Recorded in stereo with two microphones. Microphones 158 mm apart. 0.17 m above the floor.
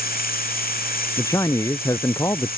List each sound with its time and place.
0.0 s running water: 80° left
1.2 s a man speaking: 20° left (ahead or behind)